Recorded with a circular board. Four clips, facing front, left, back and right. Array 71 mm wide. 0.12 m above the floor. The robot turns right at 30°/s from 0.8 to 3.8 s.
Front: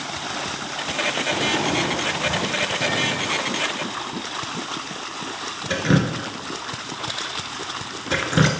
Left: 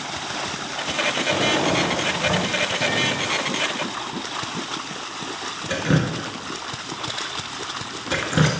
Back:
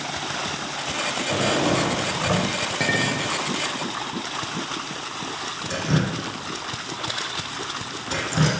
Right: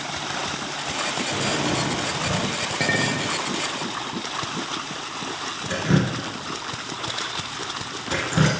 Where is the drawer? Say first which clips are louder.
Left 5 dB, back 4 dB; 125° left, 3.5 m; by 2.6 s 165° left, 3.5 m.